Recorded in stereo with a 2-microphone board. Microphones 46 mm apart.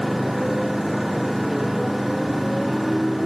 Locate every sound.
0.0 s a motorcycle: 5° right (ahead or behind)